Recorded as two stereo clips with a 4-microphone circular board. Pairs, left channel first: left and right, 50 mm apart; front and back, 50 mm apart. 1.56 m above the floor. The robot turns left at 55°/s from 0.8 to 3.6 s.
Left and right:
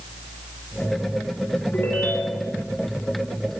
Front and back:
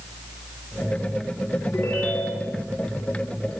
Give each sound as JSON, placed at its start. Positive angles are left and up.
{"t": 1.7, "sound": "a ringtone", "azimuth_deg": 45, "distance_m": 4.0}